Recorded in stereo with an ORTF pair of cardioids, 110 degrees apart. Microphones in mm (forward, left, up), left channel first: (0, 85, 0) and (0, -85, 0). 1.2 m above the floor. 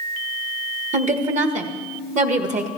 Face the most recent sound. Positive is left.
turn(degrees=-50)